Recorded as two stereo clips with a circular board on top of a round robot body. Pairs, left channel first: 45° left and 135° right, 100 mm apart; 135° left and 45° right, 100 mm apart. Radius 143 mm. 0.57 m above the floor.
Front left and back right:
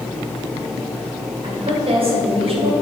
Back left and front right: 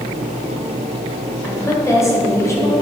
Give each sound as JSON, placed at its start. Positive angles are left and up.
{"t": 1.4, "sound": "a woman speaking", "azimuth_deg": -160, "distance_m": 2.5}